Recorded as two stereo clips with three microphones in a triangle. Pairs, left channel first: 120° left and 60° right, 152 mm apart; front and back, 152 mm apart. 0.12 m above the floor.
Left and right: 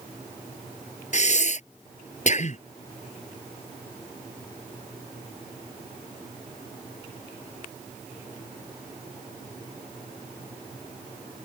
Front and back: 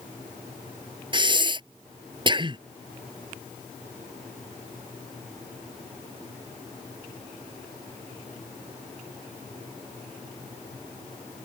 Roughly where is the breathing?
Behind left.